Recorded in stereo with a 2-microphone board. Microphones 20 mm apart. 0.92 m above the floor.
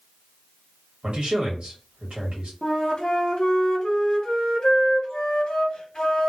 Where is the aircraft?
No aircraft in this recording.